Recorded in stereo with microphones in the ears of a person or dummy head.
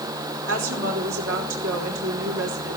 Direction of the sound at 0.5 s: 70° right (ahead or behind).